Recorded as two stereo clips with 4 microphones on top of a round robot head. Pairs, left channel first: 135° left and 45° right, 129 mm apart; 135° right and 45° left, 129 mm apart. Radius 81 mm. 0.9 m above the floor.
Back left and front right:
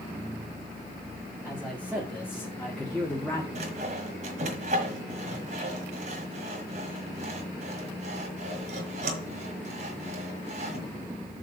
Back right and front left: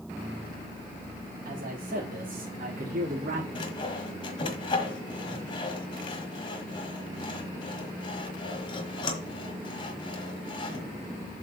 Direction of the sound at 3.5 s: 85° right.